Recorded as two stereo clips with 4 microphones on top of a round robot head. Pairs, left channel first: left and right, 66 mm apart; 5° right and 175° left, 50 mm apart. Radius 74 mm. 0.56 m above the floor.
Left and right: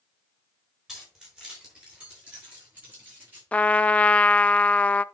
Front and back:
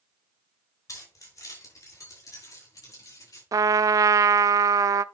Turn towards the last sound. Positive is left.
turn(degrees=165)